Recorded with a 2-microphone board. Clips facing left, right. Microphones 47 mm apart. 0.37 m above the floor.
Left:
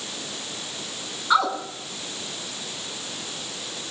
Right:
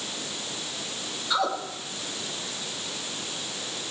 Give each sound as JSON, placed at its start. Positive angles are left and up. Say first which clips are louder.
{"t": 1.3, "sound": "a woman speaking", "louder": "left 6 dB", "side_deg": 45, "distance_m": 3.0}